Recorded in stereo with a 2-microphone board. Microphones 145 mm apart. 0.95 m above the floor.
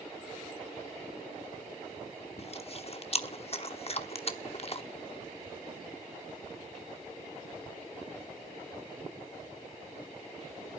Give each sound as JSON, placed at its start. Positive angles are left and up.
{"t": 2.4, "sound": "chewing", "side_deg": 45, "distance_m": 1.0}